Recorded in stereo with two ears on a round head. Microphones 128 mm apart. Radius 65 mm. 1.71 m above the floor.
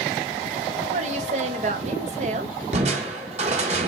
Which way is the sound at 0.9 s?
50° right (ahead or behind).